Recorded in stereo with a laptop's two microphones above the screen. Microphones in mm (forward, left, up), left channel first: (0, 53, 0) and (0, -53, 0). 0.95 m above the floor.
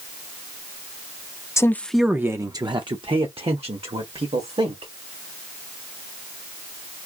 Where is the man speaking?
30° left (ahead or behind), 0.5 m; by 4.9 s 75° right (ahead or behind), 1.8 m.